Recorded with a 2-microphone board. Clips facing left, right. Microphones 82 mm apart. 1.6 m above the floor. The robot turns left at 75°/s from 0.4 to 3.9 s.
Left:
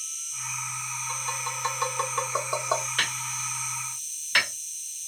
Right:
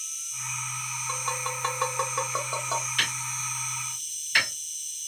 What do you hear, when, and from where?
0.0 s an insect: straight behind, 0.8 m; by 5.1 s 80° right, 0.8 m
1.1 s tapping: 75° right (ahead or behind), 0.9 m; by 2.9 s 40° left (ahead or behind), 0.9 m
3.0 s hammering: 40° left (ahead or behind), 2.5 m; by 4.5 s 65° left (ahead or behind), 2.5 m